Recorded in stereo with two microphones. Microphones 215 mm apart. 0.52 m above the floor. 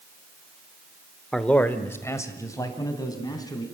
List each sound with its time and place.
1.3 s a man speaking: centre (ahead or behind), 1.1 m; by 3.6 s 20° left (ahead or behind), 4.5 m